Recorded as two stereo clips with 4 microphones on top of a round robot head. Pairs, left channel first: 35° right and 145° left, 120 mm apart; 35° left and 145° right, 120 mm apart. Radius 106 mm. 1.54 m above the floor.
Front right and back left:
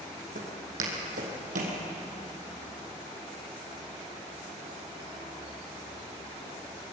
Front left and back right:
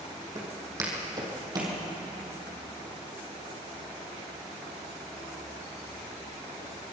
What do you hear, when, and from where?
0.3 s footsteps: 150° left, 4.5 m; by 1.8 s 160° left, 4 m